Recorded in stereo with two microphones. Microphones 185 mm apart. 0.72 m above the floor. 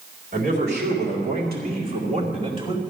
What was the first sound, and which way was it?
A man speaking, 60° right (ahead or behind).